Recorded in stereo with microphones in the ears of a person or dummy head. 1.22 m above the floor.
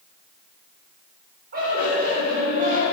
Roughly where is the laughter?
Right.